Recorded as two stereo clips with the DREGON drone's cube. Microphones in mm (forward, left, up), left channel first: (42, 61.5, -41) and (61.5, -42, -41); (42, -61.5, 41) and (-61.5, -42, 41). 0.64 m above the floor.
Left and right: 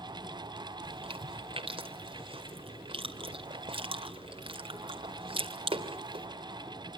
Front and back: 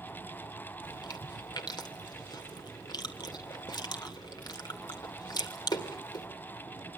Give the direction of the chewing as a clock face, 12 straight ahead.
2 o'clock.